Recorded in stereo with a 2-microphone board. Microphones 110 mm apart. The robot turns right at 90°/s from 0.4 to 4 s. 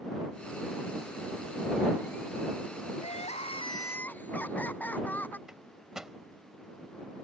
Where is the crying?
75° left; by 5.4 s 165° left.